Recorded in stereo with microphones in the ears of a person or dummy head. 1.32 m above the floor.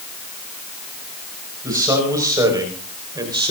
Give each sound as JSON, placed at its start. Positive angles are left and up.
{"t": 1.6, "sound": "a man speaking", "side_deg": -20, "distance_m": 6.0}